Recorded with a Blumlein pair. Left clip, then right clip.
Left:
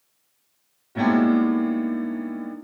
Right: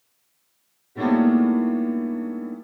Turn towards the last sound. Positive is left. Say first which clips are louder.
# even
turn(degrees=50)